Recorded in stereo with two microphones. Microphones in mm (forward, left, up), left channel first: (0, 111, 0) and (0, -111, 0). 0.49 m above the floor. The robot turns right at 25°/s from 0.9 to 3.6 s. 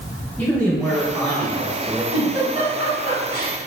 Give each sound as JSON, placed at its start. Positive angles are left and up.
{"t": 0.4, "sound": "a man speaking", "side_deg": 5, "distance_m": 1.2}
{"t": 2.1, "sound": "a giggle", "side_deg": 30, "distance_m": 1.4}